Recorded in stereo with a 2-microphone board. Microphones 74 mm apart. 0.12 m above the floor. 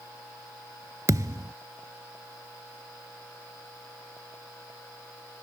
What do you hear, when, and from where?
1.1 s a thud: 50° right (ahead or behind)